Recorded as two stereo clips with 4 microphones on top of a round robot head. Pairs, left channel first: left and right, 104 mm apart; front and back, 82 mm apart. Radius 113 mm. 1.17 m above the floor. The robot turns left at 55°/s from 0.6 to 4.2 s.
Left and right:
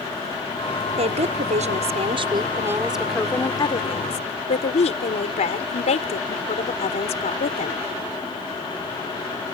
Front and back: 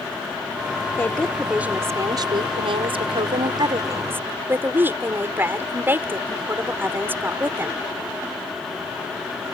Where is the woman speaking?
65° right; by 7.8 s 115° left.